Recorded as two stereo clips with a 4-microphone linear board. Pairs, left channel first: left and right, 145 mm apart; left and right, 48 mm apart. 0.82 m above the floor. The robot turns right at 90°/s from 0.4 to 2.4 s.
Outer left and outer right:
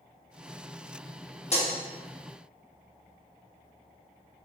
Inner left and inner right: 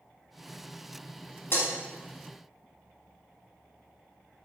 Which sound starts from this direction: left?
Breaking glass, at 1.5 s.